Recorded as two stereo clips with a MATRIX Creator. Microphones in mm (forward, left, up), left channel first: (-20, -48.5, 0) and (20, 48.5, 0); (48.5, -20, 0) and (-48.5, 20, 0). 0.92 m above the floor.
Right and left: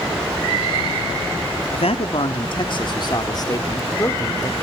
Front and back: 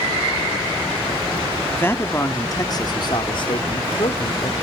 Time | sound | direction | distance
1.7 | a man speaking | 95° right | 1.6 m